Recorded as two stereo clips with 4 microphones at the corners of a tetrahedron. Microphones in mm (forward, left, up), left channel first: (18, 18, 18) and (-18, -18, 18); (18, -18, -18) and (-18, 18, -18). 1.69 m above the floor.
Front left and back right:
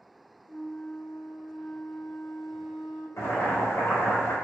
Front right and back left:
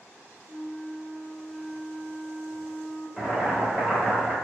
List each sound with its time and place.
0.4 s a flute: 160° right, 1.2 m
3.2 s boiling: 55° left, 1.0 m